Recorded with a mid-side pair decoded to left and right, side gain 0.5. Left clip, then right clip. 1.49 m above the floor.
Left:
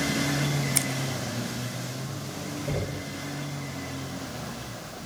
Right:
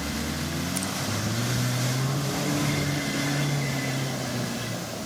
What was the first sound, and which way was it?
Scissors, 55° left.